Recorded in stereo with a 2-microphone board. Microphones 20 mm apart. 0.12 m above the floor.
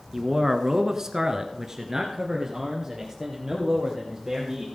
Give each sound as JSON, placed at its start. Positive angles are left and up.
{"t": 0.1, "sound": "a man speaking", "side_deg": -20, "distance_m": 1.2}